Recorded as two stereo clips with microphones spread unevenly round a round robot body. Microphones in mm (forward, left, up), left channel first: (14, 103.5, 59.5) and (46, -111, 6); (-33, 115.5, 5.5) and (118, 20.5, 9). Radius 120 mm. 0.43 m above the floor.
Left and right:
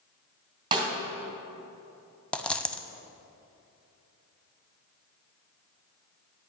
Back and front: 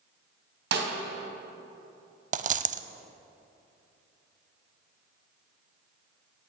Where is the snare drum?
15° right, 2.5 m.